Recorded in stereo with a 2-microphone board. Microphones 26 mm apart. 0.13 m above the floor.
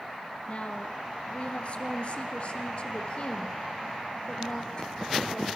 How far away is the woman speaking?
About 2.5 m.